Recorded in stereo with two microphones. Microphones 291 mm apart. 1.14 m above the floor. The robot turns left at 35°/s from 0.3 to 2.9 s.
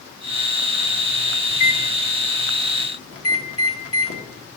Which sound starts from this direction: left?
A microwave, at 1.5 s.